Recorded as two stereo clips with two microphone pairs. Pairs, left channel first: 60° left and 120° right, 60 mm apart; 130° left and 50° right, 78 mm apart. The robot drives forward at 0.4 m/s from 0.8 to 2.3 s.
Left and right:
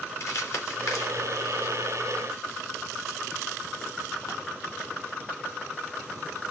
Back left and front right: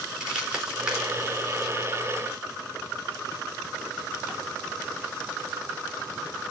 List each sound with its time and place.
0.2 s crumpling: 30° left, 4 m; by 4.3 s 35° left, 3.5 m